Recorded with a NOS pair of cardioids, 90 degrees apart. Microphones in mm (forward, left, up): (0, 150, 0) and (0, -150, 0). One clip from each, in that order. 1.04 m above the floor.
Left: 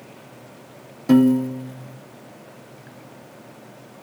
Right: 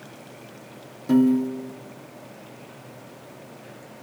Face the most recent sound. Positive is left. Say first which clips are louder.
# left 3 dB
turn(degrees=35)